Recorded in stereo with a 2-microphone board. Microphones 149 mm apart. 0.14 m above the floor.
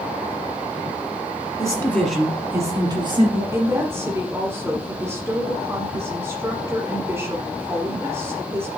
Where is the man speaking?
25° left (ahead or behind), 1.7 m; by 3.4 s 40° right (ahead or behind), 2.5 m.